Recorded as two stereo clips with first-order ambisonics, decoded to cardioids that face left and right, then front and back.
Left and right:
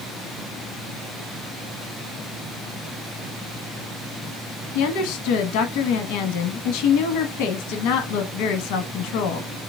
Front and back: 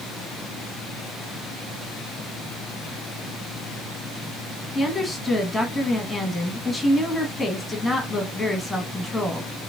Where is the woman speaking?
90° left, 1.1 m.